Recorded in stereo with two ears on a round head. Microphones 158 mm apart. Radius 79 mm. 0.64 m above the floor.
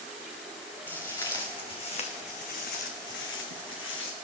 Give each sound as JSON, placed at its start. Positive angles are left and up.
{"t": 0.9, "sound": "footsteps", "side_deg": 15, "distance_m": 3.0}